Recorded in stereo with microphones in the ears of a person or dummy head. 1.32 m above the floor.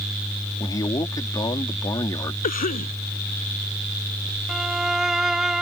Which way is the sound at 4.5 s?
Centre (ahead or behind).